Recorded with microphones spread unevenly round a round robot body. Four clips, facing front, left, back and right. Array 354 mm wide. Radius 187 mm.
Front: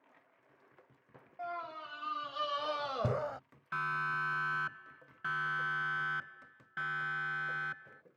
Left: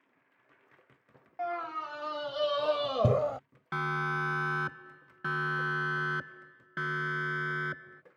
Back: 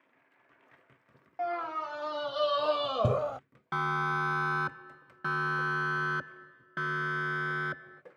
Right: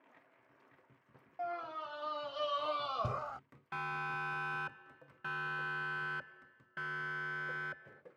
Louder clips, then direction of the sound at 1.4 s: Left 5 dB, back 9 dB; 145° left.